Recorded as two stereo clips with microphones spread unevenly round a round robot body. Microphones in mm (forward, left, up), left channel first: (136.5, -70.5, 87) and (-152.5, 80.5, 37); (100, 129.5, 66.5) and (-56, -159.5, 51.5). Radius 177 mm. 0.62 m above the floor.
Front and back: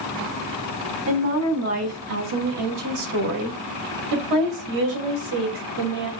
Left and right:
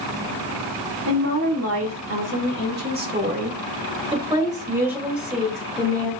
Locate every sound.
1.1 s a woman speaking: 160° right, 3 m; by 6.1 s 145° left, 3 m